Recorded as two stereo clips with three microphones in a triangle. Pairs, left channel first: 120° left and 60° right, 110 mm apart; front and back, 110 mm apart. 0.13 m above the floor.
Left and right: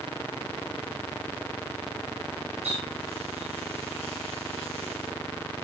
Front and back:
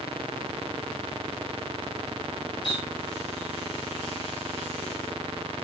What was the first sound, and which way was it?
A running tap, 45° right.